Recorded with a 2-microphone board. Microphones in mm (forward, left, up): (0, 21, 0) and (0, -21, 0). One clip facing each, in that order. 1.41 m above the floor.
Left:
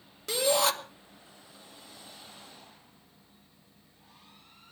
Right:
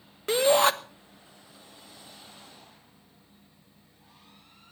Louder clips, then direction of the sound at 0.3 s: Right 5 dB; 35° right (ahead or behind).